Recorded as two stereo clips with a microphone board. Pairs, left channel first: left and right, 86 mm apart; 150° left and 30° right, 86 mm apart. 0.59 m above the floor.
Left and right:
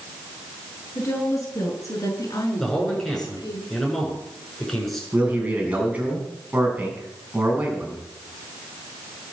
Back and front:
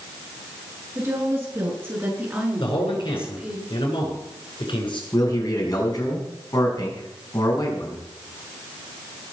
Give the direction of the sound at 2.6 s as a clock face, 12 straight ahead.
6 o'clock.